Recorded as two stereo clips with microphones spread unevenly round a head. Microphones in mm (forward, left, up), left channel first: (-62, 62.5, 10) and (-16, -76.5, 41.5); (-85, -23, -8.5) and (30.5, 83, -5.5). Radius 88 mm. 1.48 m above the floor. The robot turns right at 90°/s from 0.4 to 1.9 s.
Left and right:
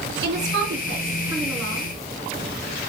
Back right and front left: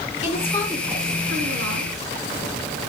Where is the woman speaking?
80° right, 3.5 m; by 1.9 s 55° left, 3.5 m.